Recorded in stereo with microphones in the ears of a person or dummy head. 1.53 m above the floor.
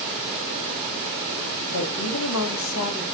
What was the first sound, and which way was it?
A woman speaking, 60° left (ahead or behind).